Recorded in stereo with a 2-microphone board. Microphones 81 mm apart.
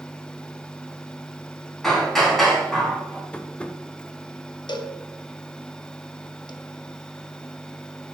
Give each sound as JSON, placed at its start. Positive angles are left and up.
{"t": 1.8, "sound": "hammering", "side_deg": 5, "distance_m": 2.0}
{"t": 3.3, "sound": "tapping", "side_deg": 15, "distance_m": 0.6}
{"t": 4.7, "sound": "a cowbell", "side_deg": 65, "distance_m": 0.7}